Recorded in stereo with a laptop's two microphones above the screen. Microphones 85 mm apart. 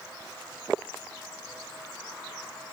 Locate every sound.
Only background noise.